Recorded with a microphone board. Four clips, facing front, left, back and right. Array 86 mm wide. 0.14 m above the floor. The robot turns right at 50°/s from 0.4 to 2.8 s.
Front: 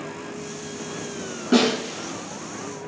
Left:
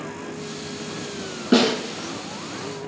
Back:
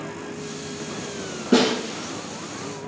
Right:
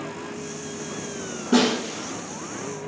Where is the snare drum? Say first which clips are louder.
Left 2 dB, even; 75° left, 1.4 m; by 1.7 s 85° left, 1.4 m.